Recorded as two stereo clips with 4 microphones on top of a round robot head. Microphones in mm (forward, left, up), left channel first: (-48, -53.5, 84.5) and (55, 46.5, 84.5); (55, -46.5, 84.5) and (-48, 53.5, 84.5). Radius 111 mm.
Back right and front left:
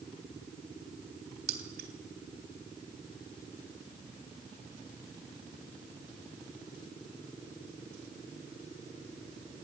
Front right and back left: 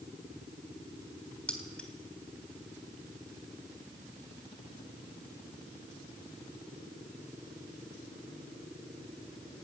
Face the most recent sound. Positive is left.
turn(degrees=40)